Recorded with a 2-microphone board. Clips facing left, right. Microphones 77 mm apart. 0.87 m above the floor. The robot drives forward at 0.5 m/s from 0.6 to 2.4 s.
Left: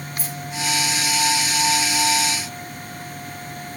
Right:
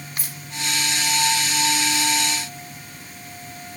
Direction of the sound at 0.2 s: 85° right.